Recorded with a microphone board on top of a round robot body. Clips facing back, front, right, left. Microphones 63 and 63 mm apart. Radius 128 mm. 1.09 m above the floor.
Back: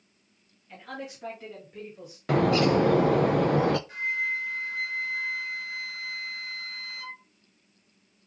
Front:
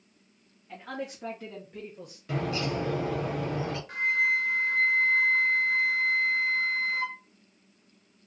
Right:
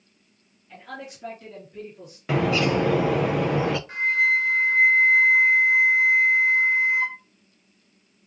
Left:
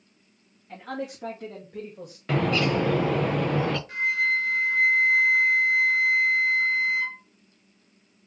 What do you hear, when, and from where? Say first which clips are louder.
0.7 s a man speaking: front 2 dB, left 5 dB; 60° left, 2 m; by 2.2 s 95° left, 2.0 m
2.3 s a bird: back 9 dB, right 2 dB; 175° right, 0.5 m
3.9 s a flute: front 3 dB, right 4 dB; 35° right, 0.5 m